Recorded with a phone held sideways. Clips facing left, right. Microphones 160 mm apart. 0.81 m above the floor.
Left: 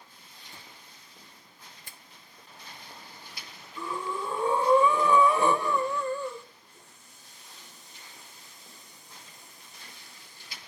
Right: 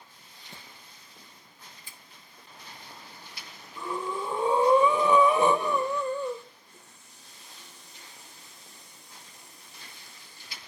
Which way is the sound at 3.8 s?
20° right (ahead or behind).